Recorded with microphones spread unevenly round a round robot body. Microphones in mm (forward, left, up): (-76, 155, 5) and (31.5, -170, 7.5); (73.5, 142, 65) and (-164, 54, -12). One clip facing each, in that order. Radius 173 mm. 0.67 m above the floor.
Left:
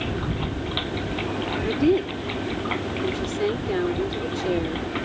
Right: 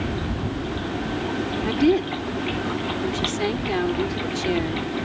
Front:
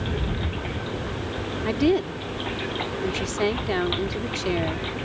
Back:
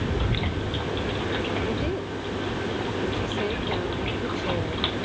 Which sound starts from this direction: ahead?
A woman speaking, at 1.6 s.